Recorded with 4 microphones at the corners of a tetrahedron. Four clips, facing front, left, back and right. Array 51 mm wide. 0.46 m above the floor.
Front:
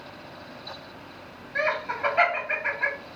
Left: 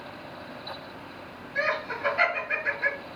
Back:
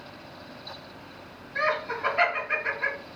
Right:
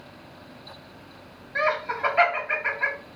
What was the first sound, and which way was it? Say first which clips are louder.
Laughter: right 3 dB, front 1 dB; 50° right.